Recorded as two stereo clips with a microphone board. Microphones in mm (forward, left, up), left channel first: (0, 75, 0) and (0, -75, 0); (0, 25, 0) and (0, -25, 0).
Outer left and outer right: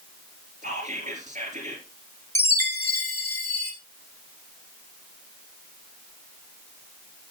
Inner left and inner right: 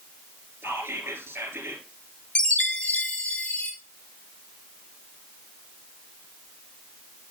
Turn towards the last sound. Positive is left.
turn(degrees=15)  # may be behind; listen again after turning